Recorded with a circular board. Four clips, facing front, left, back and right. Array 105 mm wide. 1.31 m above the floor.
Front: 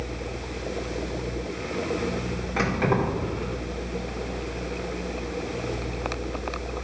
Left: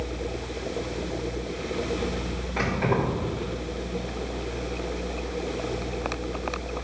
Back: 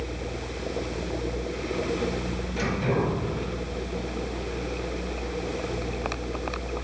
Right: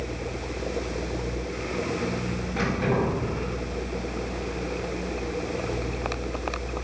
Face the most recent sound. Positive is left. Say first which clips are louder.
# even, front 2 dB
turn(degrees=0)